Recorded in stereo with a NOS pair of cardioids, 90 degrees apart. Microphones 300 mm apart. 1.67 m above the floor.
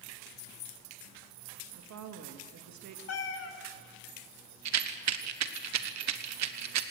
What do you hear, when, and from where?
1.8 s a woman speaking: 65° right, 2.5 m
3.1 s a cat meowing: 55° left, 3 m
4.7 s a rattle: 65° right, 1.4 m